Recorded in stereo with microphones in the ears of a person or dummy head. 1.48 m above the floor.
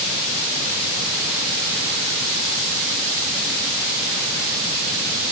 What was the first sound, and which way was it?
Only background noise.